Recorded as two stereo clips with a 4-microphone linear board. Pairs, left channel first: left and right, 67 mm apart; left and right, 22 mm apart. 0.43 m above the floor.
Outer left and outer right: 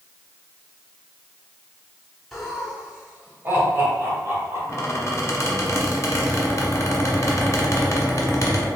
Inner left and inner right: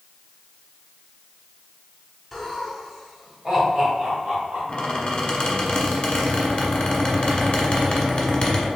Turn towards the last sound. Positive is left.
turn(degrees=40)  # may be behind; listen again after turning